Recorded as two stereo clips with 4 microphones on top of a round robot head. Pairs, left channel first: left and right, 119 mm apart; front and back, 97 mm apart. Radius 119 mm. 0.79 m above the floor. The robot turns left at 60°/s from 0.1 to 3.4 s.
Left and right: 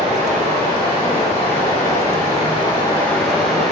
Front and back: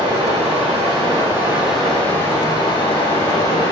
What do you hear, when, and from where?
0.0 s running water: 165° right, 1.7 m; by 3.7 s 5° right, 1.7 m